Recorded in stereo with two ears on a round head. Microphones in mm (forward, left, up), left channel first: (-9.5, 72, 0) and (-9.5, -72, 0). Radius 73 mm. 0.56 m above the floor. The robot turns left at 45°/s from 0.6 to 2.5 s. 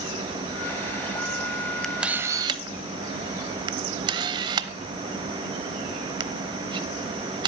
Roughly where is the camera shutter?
Centre.